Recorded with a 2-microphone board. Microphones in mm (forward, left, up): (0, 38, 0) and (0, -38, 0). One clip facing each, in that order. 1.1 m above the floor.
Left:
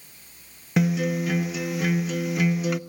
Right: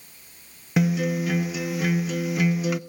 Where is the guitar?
Centre (ahead or behind), 0.5 m.